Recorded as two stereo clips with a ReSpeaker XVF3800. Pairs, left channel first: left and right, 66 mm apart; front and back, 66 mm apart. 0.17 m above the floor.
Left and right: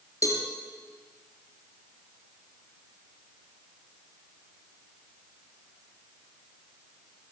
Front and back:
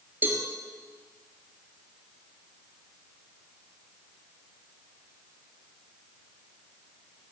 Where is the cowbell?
120° left, 3 m.